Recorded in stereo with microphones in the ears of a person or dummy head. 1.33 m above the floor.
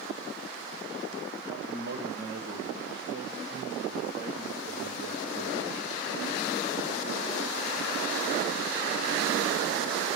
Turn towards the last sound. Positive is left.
turn(degrees=-70)  # may be behind; listen again after turning